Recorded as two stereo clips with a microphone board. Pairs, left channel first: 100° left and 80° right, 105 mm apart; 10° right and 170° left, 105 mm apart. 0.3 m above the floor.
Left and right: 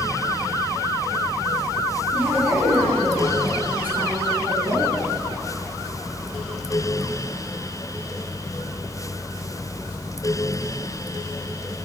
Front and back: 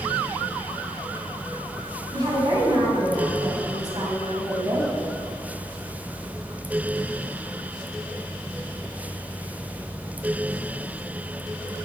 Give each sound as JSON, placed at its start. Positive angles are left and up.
{"t": 2.1, "sound": "a woman speaking", "azimuth_deg": -145, "distance_m": 3.0}